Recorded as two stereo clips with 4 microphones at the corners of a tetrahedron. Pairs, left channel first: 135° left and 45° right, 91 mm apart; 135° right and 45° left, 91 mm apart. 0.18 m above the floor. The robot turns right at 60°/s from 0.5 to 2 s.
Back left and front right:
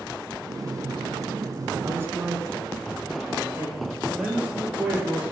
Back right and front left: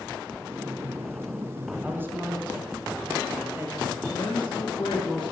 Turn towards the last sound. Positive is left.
turn(degrees=-120)